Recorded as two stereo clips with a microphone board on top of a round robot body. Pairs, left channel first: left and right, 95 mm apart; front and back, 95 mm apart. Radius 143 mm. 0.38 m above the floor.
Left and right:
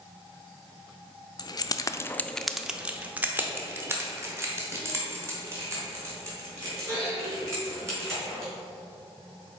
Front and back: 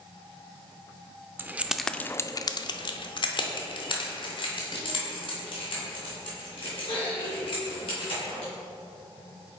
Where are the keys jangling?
120° left, 0.6 m; by 8.5 s 30° right, 4 m.